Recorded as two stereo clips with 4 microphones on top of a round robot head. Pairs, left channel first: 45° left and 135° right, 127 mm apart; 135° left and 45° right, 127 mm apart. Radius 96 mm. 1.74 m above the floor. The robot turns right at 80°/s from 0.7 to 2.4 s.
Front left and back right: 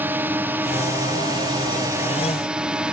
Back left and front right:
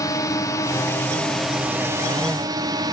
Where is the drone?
165° left; by 2.9 s 60° right.